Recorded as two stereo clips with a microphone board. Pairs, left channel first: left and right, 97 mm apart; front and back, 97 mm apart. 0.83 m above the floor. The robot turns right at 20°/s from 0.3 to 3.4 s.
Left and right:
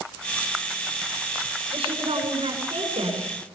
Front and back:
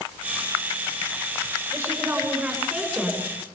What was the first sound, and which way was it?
A woman speaking, 115° right.